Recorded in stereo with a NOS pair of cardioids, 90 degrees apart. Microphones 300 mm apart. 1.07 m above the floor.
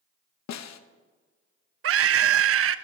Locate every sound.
0.5 s a snare drum: 65° left, 1.0 m
1.8 s a scream: 50° right, 0.9 m